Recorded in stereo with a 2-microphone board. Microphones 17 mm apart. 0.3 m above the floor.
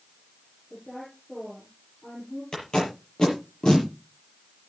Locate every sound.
0.7 s a woman speaking: 30° left (ahead or behind), 7.5 m
2.5 s tape being pulled: 50° left (ahead or behind), 6 m